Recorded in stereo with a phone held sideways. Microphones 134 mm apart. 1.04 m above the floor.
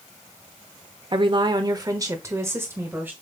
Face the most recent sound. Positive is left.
turn(degrees=-15)  # may be behind; listen again after turning